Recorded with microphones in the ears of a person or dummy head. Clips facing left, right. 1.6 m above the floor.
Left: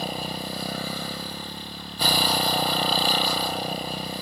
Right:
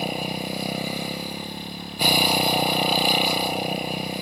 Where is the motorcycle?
10° right (ahead or behind).